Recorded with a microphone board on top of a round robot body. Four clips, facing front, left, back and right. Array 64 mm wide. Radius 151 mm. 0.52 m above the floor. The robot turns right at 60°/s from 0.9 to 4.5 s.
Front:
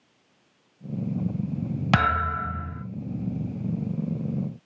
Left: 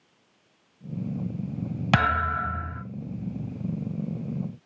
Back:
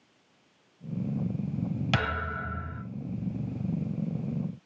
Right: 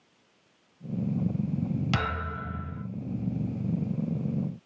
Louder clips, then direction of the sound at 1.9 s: Left 8 dB, front 10 dB; 40° left.